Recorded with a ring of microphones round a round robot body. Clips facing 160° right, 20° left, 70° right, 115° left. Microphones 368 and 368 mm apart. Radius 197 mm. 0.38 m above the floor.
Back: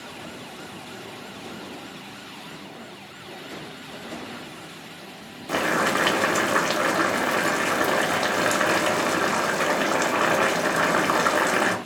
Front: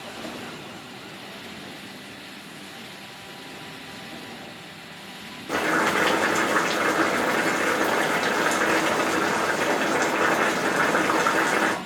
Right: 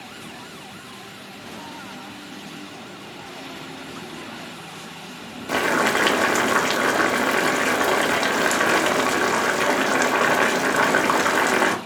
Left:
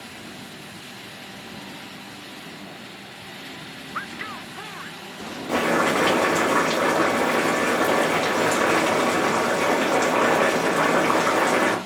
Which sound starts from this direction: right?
Boiling, at 5.5 s.